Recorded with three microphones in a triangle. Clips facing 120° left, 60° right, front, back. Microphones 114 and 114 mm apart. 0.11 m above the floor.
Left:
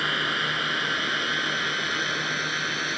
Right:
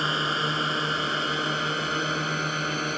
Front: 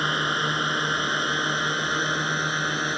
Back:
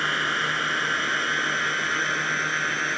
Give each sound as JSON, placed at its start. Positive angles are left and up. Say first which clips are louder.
{"t": 0.0, "sound": "a drone", "louder": "right 2 dB, front 1 dB", "azimuth_deg": -50}